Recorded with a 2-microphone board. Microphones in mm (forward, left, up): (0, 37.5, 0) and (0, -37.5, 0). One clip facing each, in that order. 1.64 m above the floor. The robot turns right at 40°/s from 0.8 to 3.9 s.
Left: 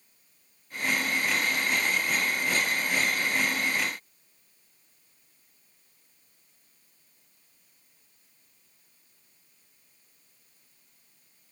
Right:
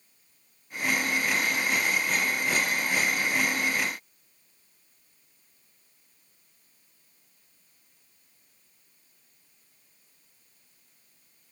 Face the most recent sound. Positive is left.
No sound to turn to.